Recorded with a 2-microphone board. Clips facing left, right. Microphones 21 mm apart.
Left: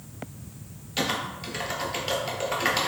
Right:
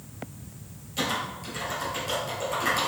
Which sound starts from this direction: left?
Typing on a keyboard, at 1.0 s.